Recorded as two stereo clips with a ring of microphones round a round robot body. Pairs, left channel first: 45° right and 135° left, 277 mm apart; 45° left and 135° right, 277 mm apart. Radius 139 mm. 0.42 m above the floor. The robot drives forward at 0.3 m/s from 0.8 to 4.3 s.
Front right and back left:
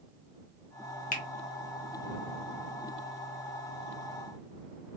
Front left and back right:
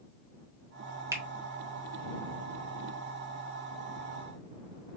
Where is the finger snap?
65° right, 0.6 m; by 1.2 s 75° right, 0.6 m.